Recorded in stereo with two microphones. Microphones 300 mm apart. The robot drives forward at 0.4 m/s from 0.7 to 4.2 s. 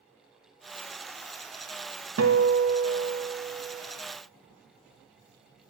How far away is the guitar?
About 0.6 m.